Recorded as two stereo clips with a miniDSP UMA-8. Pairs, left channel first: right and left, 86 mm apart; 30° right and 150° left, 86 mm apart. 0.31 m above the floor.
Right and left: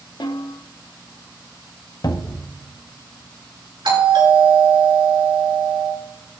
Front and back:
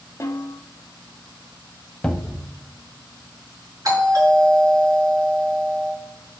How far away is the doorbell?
About 4.5 m.